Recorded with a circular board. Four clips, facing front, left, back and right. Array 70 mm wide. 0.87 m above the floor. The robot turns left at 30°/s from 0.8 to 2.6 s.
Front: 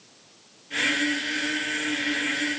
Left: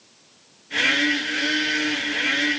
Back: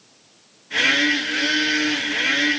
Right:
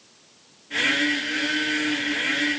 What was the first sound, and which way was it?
Only background noise.